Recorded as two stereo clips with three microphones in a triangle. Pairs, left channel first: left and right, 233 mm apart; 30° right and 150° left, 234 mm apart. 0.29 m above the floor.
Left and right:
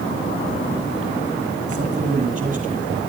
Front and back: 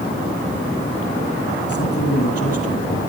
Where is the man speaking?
35° right, 8.5 m.